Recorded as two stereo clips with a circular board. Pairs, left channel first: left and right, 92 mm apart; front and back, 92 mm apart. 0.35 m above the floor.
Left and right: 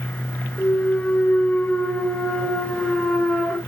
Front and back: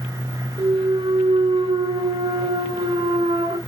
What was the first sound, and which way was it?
A clunk, 165° left.